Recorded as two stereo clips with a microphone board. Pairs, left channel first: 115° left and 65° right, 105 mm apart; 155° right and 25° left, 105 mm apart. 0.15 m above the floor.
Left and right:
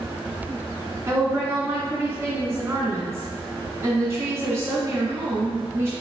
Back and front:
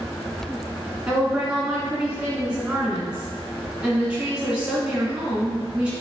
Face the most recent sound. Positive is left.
turn(degrees=-40)